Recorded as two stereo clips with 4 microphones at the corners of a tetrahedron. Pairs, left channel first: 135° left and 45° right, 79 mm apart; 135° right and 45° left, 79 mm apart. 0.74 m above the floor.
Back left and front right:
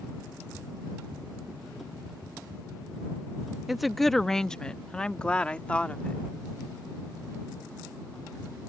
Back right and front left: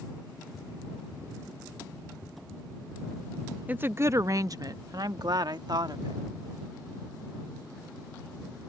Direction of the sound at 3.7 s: 35° left.